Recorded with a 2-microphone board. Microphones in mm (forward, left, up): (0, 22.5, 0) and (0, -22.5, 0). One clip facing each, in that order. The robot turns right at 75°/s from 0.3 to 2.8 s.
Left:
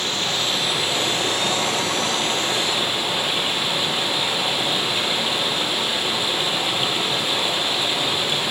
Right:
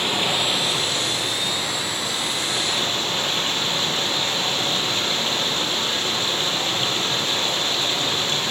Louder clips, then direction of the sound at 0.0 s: Right 2 dB; 25° right.